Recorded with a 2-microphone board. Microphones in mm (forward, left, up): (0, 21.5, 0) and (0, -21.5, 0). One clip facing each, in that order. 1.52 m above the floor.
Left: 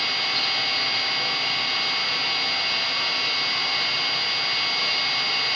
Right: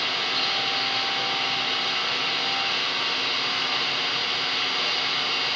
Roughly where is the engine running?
Right.